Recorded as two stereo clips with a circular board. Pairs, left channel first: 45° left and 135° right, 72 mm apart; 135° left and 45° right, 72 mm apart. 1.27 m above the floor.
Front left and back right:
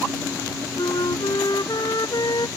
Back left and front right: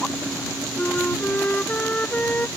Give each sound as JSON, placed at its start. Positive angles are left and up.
{"t": 0.8, "sound": "a flute", "azimuth_deg": 65}